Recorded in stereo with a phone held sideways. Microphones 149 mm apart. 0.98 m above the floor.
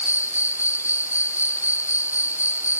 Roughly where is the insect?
Centre.